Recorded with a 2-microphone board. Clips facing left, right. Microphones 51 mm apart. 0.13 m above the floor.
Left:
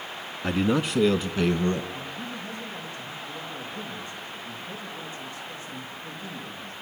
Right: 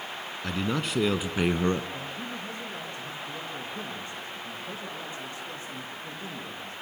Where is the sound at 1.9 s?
35° right (ahead or behind), 6.5 m.